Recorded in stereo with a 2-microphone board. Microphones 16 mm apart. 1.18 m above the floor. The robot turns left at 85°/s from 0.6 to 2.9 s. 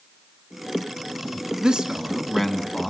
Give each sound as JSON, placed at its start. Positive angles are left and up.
{"t": 1.6, "sound": "a man speaking", "azimuth_deg": -100, "distance_m": 2.0}